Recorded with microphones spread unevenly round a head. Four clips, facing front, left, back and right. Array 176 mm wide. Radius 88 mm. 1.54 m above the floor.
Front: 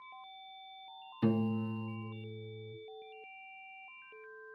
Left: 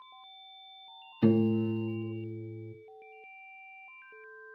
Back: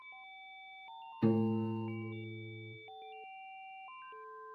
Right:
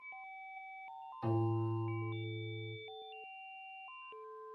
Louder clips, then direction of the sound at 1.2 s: Left 10 dB, back 1 dB; 95° left.